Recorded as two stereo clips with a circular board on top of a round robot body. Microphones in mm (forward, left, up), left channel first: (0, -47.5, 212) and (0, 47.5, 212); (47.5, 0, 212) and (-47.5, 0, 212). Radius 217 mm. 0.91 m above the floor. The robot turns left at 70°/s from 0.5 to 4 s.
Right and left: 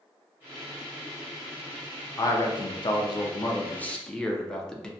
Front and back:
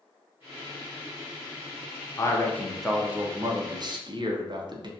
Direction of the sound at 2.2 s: 45° right.